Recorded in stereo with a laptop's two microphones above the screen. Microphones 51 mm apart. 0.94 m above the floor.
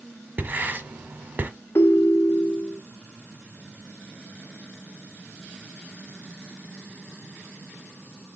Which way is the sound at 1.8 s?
50° left (ahead or behind).